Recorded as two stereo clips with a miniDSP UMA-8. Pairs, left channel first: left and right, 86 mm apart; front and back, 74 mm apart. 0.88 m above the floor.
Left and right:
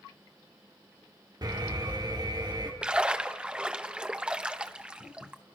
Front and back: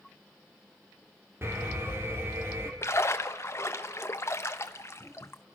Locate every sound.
1.4 s an alarm: 125° right, 3.5 m
2.8 s a splash: 20° right, 1.1 m